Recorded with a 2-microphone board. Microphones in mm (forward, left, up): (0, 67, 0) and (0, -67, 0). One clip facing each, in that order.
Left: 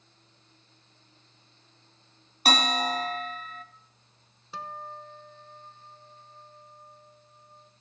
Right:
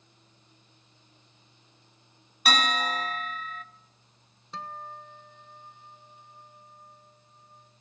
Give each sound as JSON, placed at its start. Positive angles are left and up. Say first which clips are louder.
{"t": 2.5, "sound": "a bell", "louder": "left 1 dB", "side_deg": 35, "distance_m": 0.9}
{"t": 4.5, "sound": "a guitar", "louder": "left 1 dB", "side_deg": 5, "distance_m": 1.0}